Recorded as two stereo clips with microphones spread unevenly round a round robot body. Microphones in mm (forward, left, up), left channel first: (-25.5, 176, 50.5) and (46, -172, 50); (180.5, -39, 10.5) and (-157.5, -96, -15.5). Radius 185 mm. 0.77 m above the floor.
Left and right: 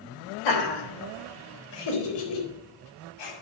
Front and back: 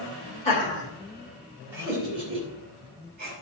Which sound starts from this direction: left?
Laughter, at 0.5 s.